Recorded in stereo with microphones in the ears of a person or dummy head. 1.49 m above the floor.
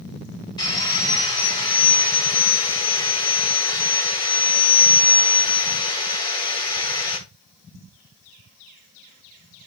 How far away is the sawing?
About 3.5 m.